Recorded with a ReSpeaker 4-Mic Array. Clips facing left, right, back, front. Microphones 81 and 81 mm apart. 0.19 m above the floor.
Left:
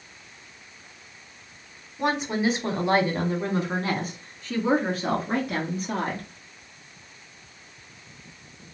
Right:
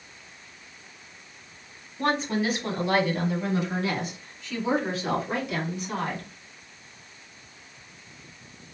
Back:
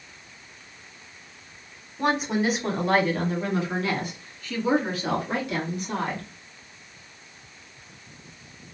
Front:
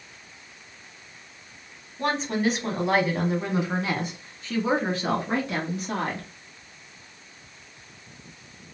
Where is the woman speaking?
145° left, 1.1 m; by 6.3 s 45° left, 3 m.